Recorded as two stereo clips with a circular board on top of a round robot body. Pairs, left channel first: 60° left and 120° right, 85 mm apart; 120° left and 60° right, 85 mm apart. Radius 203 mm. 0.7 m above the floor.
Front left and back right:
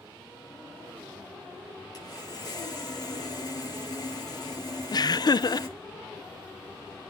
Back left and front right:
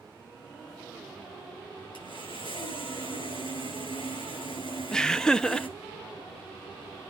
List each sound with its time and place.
1.9 s sawing: 105° left, 8 m
4.9 s laughter: 40° left, 0.6 m